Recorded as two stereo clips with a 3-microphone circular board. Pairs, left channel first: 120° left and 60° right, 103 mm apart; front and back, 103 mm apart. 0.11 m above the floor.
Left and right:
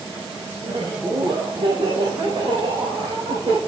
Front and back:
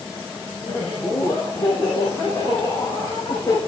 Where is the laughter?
20° right, 2 m; by 3.6 s 45° right, 4 m.